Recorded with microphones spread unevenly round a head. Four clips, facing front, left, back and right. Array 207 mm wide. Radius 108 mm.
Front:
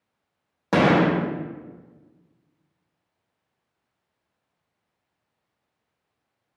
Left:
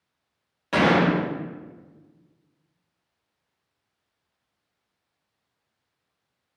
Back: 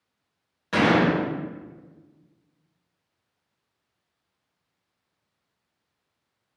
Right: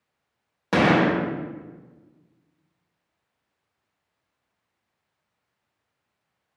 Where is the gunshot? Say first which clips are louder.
Right 1 dB, front 2 dB; 25° right, 0.9 m.